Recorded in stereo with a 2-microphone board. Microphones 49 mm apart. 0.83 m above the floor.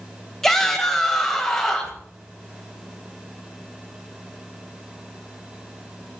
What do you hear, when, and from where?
0.4 s a shout: 5° left (ahead or behind), 4 m